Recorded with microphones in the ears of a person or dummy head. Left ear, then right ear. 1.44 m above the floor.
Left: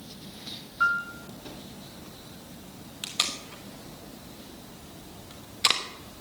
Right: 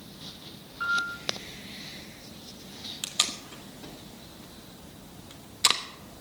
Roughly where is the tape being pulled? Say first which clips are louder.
Even; centre.